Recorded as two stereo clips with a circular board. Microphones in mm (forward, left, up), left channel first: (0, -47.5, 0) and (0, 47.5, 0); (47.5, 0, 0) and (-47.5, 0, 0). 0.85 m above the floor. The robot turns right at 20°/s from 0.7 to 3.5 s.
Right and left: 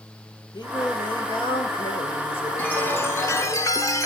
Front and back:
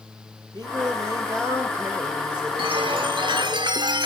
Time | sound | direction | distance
0.5 | singing | 135° right | 2 m
2.6 | a chime | 165° right | 1.3 m